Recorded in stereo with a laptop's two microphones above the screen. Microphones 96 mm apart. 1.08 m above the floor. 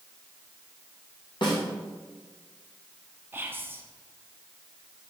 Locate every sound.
1.4 s a snare drum: 55° left (ahead or behind), 1.0 m
3.3 s whispering: 25° right (ahead or behind), 0.6 m